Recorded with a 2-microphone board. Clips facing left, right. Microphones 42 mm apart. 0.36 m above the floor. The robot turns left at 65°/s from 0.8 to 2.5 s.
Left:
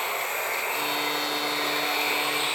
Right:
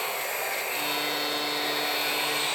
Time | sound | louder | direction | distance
0.0 | running water | left 2 dB | 135° left | 2.0 m